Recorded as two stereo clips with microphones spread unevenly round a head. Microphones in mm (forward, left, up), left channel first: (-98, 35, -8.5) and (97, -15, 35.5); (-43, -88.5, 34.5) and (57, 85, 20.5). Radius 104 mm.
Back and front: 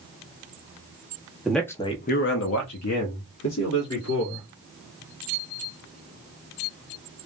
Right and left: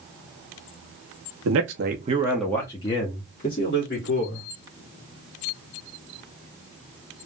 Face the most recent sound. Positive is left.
turn(degrees=-160)